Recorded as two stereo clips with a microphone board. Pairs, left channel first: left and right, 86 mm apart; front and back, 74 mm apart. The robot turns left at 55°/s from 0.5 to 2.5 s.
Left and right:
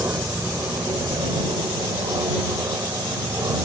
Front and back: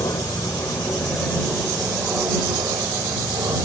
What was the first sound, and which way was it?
An aircraft, 30° right.